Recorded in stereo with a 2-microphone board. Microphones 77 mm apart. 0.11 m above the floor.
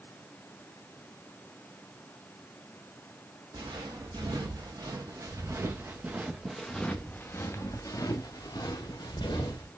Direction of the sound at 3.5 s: 65° right (ahead or behind).